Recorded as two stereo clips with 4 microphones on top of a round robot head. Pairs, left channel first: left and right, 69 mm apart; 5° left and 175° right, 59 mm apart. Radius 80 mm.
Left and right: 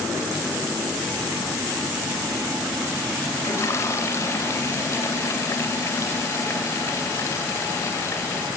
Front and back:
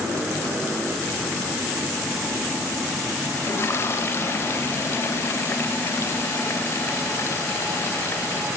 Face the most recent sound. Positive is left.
turn(degrees=45)